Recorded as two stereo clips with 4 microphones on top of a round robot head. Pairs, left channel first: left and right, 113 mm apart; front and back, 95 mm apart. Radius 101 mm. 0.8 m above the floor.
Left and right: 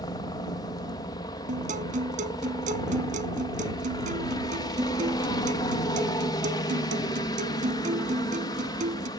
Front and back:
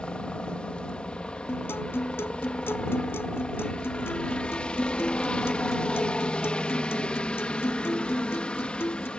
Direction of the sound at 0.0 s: 70° left.